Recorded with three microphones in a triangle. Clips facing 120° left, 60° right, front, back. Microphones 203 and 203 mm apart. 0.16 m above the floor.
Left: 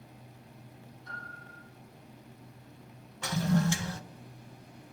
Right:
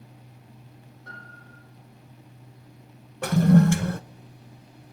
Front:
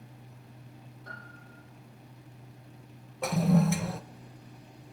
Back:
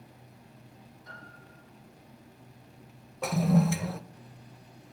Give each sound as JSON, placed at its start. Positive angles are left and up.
{"t": 1.1, "sound": "a piano", "azimuth_deg": -35, "distance_m": 7.0}
{"t": 3.2, "sound": "a toilet flushing", "azimuth_deg": -90, "distance_m": 0.5}